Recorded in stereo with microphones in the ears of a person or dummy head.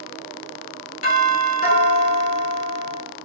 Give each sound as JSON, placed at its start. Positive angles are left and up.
{"t": 1.0, "sound": "a doorbell", "side_deg": 40, "distance_m": 1.2}